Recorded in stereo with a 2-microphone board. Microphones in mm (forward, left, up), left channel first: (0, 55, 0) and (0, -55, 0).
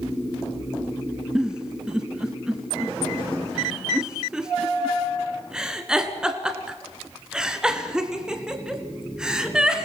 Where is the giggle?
10° right (ahead or behind), 2.0 m.